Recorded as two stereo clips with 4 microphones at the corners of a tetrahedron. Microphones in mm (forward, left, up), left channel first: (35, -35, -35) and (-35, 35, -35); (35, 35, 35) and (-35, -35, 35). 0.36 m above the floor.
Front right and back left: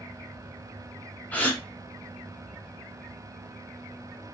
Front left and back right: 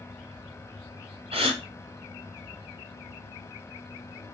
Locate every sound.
1.3 s a gasp: 120° right, 1.3 m